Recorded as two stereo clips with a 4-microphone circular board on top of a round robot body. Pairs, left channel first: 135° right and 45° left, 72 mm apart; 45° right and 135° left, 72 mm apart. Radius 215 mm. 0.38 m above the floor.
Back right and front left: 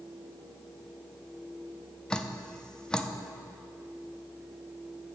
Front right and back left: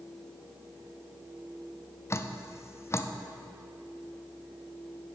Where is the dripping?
60° right, 0.7 m.